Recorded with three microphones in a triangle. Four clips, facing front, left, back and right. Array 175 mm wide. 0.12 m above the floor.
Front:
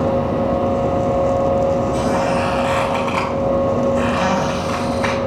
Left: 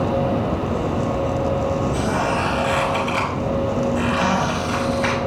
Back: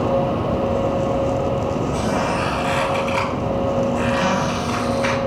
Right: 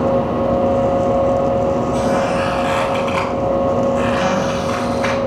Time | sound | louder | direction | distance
1.9 | a squeak | right 5 dB, front 3 dB | 30° right | 4 m